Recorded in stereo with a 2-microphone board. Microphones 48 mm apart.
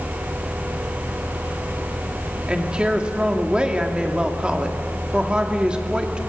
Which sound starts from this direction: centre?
A woman speaking, at 2.5 s.